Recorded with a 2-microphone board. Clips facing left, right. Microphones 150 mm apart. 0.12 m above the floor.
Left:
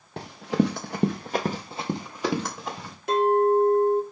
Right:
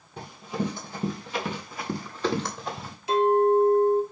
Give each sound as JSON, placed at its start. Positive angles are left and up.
{"t": 0.2, "sound": "running footsteps", "side_deg": 80, "distance_m": 0.8}
{"t": 3.1, "sound": "a clink", "side_deg": 50, "distance_m": 1.0}